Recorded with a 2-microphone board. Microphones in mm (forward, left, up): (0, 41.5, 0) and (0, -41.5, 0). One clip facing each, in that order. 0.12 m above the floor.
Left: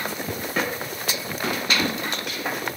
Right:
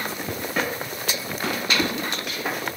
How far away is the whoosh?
About 3.5 m.